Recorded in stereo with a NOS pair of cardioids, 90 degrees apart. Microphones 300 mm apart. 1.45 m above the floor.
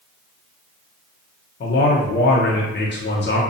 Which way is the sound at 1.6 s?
35° left.